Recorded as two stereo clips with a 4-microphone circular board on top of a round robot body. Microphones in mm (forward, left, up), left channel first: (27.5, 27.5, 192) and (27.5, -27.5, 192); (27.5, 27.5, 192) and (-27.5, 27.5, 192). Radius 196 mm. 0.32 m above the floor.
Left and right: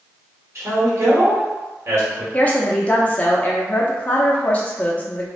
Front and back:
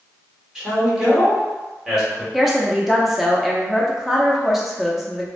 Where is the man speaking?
100° right, 1.6 m.